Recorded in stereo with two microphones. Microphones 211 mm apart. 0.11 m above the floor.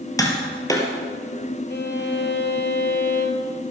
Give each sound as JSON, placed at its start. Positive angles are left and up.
{"t": 0.2, "sound": "tapping", "side_deg": 15, "distance_m": 2.5}
{"t": 1.7, "sound": "a violin", "side_deg": 55, "distance_m": 1.9}